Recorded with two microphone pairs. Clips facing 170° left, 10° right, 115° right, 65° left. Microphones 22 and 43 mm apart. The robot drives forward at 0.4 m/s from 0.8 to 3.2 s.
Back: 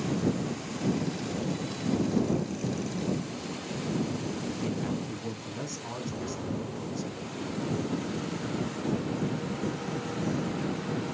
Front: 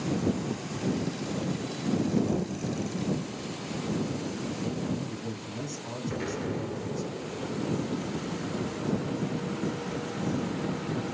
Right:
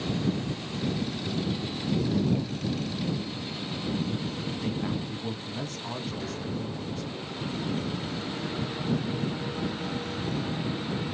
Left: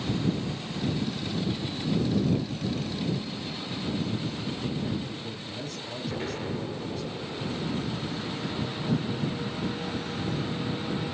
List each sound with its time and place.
4.6 s a man speaking: 125° right, 1.5 m
6.0 s an explosion: 15° left, 1.7 m